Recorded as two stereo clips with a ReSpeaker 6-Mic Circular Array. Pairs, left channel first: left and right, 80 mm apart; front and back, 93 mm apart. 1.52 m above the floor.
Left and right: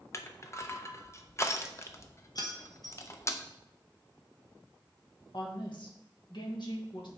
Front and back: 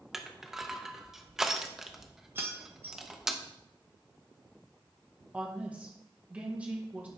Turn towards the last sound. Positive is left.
turn(degrees=105)